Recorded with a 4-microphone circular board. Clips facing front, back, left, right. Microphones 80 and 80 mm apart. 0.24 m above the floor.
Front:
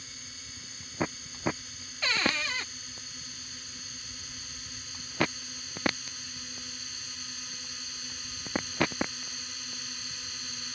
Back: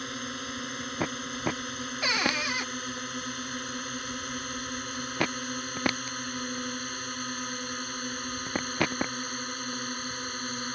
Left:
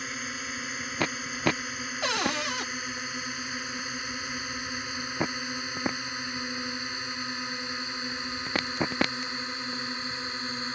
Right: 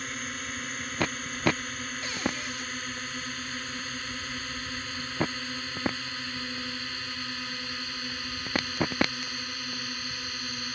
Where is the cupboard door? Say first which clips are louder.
Back 1 dB, left 5 dB; 105° left.